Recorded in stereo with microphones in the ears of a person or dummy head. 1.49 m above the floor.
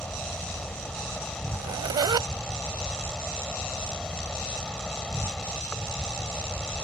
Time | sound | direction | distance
0.0 | an insect | 10° left (ahead or behind) | ?
1.5 | a zipper | 20° right (ahead or behind) | ?